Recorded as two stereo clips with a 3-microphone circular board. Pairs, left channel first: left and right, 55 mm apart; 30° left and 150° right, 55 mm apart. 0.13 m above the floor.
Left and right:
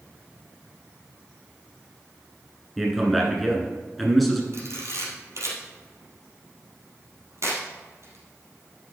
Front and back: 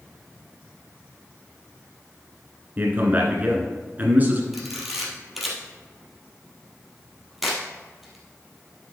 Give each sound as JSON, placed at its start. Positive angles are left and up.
{"t": 2.8, "sound": "a man speaking", "azimuth_deg": 180, "distance_m": 1.4}
{"t": 4.5, "sound": "a camera shutter", "azimuth_deg": -60, "distance_m": 2.5}